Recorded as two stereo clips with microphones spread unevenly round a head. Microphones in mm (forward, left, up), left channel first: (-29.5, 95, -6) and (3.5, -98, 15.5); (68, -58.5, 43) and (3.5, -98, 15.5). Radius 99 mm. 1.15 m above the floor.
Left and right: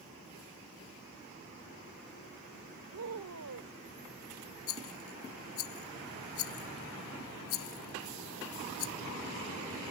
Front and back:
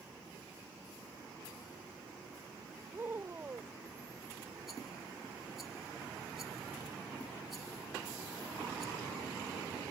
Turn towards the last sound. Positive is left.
turn(degrees=120)